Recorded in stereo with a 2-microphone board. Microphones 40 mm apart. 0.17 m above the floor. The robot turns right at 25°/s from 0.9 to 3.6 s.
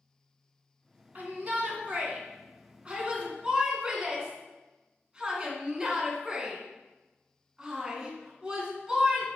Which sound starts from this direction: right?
A shout, at 1.1 s.